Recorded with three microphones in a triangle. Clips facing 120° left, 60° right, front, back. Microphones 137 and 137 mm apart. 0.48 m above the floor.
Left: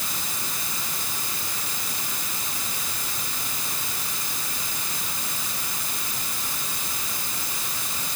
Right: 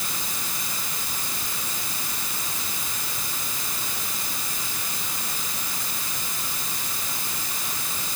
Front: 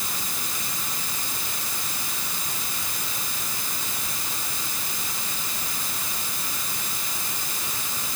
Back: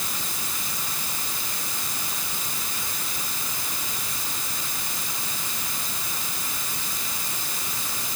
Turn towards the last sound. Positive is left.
No sound to turn to.